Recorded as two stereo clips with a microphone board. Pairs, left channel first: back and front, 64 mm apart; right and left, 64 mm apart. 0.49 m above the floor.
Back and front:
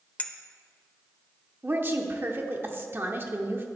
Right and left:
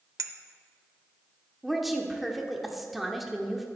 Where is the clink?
115° left, 0.7 m.